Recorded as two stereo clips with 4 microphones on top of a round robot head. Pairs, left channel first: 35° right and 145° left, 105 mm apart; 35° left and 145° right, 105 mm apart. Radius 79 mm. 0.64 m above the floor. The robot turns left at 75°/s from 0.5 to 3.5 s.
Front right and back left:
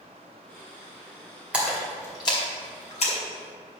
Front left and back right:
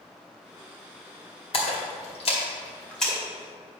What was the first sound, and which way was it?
A splash, 65° left.